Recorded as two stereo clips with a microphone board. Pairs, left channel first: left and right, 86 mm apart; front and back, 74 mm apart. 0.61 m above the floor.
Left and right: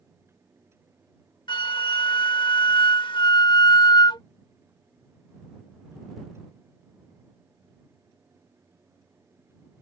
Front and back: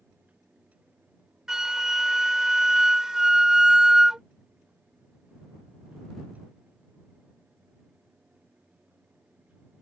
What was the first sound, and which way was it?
A flute, 100° left.